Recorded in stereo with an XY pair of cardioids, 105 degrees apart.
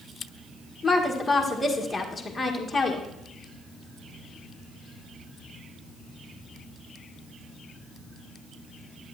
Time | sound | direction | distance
0.8 | a woman speaking | 20° left | 1.6 m